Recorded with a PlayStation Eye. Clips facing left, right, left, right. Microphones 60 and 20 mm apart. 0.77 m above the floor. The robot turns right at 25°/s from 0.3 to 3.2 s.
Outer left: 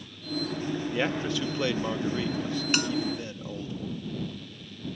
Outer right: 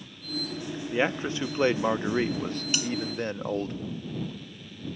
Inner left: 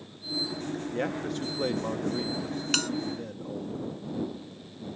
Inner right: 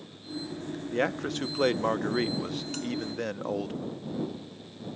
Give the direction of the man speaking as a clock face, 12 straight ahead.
5 o'clock.